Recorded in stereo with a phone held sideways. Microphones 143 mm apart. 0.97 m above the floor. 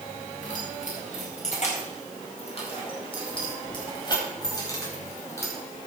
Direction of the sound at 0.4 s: 65° left (ahead or behind).